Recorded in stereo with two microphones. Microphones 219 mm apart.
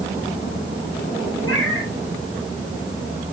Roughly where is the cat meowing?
Left.